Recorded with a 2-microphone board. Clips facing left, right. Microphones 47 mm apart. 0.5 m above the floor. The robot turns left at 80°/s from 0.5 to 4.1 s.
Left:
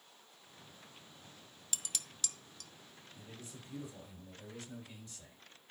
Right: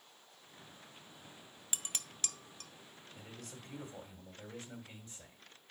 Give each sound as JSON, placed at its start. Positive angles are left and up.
{"t": 1.7, "sound": "dishes clattering", "side_deg": -25, "distance_m": 0.5}
{"t": 3.1, "sound": "a man speaking", "azimuth_deg": -65, "distance_m": 2.5}